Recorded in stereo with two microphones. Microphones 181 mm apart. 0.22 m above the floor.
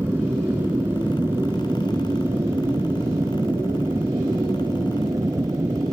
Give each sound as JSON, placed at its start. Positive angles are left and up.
{"t": 0.0, "sound": "an aircraft", "side_deg": -10}